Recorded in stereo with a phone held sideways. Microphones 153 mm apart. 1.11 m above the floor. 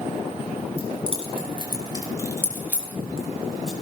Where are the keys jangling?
45° right (ahead or behind), 5 m; by 3.7 s 5° left (ahead or behind), 5 m.